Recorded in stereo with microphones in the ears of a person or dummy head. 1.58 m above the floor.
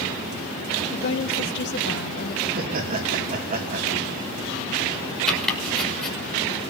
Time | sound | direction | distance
0.9 | a woman speaking | 65° left (ahead or behind) | 3 m
2.5 | laughter | 40° right (ahead or behind) | 3 m
5.3 | chopping | centre (ahead or behind) | 6 m